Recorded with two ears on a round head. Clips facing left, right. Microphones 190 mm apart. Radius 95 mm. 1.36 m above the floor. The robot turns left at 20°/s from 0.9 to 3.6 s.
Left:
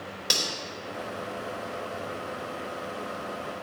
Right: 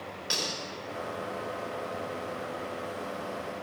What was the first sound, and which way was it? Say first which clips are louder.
Cutlery clinking: left 2 dB; 65° left (ahead or behind).